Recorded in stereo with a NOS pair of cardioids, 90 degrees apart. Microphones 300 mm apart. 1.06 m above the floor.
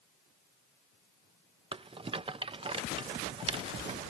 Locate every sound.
1.7 s a rattle: 20° right, 0.5 m